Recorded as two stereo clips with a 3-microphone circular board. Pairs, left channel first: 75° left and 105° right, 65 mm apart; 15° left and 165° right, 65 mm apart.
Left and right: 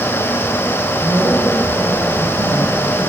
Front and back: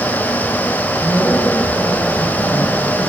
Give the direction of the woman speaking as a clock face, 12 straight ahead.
1 o'clock.